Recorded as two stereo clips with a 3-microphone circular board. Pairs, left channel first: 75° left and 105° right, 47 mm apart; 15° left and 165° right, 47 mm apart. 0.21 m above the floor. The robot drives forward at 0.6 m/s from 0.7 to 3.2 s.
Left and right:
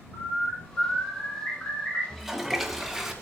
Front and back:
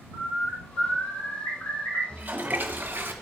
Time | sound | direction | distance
0.1 | a bird | 35° left | 7 m
2.1 | a toilet flushing | 165° left | 1.2 m